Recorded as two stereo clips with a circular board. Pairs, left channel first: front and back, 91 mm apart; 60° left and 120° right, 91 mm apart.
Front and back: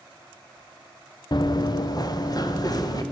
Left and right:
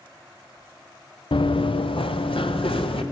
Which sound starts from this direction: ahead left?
Running footsteps, at 1.3 s.